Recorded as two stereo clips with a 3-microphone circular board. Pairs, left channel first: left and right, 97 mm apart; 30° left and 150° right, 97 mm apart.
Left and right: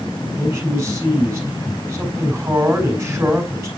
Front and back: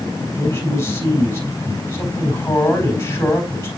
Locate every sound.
0.4 s a man speaking: 30° right, 4 m